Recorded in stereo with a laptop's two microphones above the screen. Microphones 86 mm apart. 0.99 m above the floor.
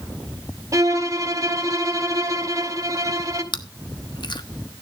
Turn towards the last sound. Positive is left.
turn(degrees=60)  # may be behind; listen again after turning